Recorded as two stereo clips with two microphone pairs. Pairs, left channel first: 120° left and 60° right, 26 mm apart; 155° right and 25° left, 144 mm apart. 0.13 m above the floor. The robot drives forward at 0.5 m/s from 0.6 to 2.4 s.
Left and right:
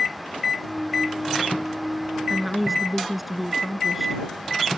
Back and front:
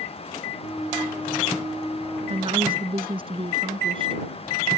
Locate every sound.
2.3 s a woman speaking: 25° left